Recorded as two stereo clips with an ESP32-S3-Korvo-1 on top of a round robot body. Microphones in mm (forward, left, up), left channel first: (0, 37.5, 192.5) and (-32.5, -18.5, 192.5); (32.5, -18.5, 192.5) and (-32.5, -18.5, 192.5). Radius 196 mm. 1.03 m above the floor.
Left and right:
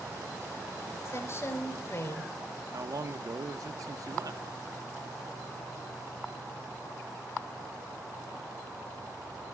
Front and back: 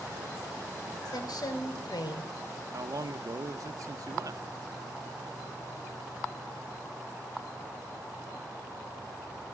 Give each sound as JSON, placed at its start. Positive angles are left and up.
{"t": 1.1, "sound": "a woman speaking", "azimuth_deg": 10, "distance_m": 5.0}
{"t": 2.7, "sound": "a man speaking", "azimuth_deg": -150, "distance_m": 1.8}